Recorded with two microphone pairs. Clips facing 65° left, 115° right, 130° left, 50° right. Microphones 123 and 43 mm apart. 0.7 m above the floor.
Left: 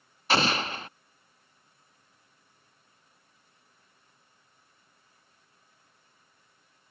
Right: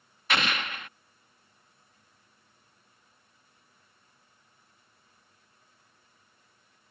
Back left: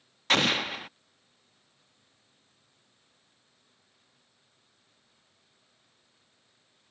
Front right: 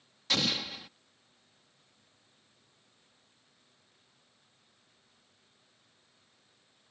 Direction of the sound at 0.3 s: 110° left.